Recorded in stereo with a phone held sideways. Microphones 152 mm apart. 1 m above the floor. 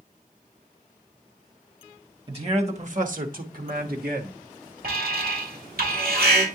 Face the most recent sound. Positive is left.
turn(degrees=-75)  # may be behind; listen again after turning